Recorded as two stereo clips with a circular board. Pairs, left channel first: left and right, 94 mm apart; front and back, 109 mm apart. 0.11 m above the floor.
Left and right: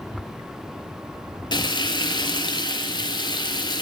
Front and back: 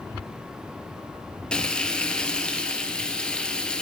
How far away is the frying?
About 0.6 m.